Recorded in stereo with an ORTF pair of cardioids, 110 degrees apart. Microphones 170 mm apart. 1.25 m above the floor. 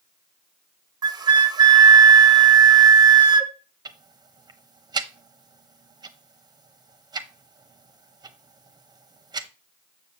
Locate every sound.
1.0 s a flute: 25° right, 0.8 m
3.9 s ticking: 25° right, 0.9 m